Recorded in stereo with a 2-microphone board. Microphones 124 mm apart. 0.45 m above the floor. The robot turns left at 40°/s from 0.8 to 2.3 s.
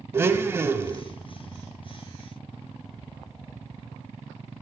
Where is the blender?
20° right (ahead or behind), 0.5 m; by 1.0 s 30° right (ahead or behind), 0.5 m.